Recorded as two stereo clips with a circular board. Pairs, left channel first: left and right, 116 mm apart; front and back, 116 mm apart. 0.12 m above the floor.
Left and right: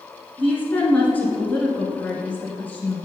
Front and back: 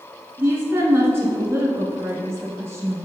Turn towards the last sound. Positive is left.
turn(degrees=145)